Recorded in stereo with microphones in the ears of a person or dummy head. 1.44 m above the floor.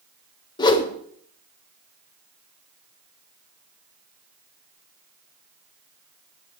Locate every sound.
0.6 s a whoosh: 25° left (ahead or behind), 1.8 m